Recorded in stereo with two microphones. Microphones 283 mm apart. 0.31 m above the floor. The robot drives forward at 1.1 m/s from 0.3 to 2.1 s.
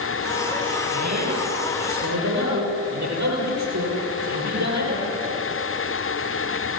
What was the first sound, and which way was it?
A man speaking, 80° right.